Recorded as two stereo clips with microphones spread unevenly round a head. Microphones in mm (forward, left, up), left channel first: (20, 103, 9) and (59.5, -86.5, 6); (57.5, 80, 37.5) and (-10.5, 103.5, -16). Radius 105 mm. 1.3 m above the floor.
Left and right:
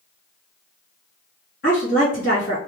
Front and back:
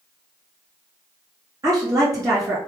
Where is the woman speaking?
145° left, 1.6 m.